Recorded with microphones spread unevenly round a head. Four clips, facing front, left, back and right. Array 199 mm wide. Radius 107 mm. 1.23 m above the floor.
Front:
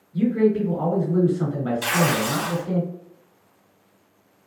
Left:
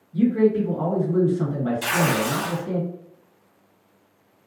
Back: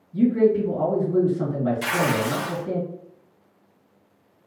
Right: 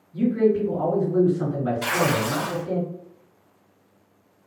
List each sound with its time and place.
0.1 s a man speaking: 150° left, 1.9 m
1.8 s tearing paper: 140° left, 1.4 m